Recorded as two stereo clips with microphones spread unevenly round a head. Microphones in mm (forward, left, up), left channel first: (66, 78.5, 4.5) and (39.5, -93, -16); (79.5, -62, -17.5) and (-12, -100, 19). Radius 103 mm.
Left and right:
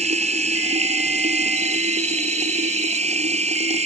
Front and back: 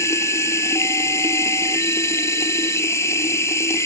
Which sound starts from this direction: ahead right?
Running water, at 0.0 s.